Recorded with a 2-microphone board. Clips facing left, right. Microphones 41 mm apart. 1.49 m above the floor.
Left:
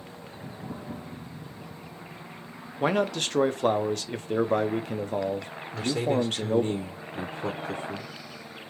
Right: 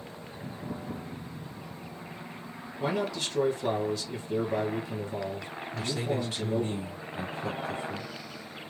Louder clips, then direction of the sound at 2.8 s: Left 5 dB; 60° left (ahead or behind).